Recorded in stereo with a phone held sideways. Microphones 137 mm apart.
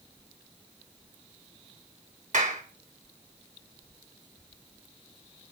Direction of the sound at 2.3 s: 80° right.